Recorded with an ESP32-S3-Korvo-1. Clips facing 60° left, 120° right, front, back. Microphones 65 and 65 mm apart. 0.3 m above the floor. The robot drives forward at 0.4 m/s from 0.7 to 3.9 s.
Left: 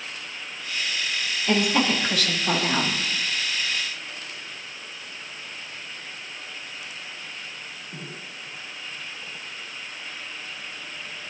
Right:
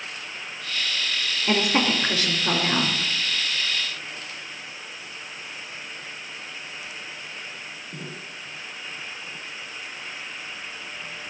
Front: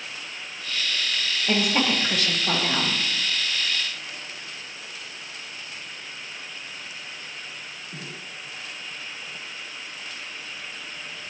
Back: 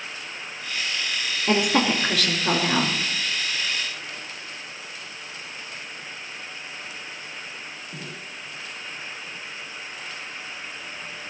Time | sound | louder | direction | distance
1.5 | a woman speaking | even, back 3 dB | 175° right | 4 m